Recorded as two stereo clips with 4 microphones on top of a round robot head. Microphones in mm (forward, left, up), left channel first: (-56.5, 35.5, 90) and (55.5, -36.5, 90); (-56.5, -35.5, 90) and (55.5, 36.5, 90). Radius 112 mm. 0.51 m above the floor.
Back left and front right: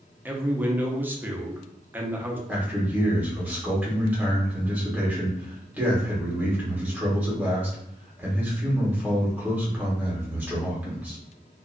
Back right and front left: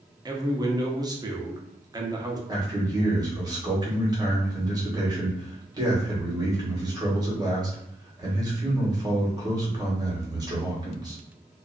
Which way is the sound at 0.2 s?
25° left.